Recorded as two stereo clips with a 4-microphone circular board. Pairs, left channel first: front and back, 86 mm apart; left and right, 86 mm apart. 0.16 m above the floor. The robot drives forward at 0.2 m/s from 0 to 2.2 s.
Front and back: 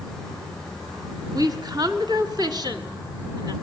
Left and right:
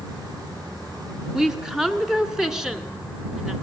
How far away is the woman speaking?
About 1.9 m.